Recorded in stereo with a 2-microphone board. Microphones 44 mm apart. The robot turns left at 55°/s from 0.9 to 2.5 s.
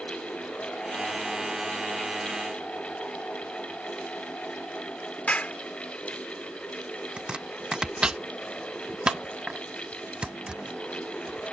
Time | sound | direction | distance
5.3 | a clap | 30° left (ahead or behind) | ?
7.2 | chopping | 20° right (ahead or behind) | ?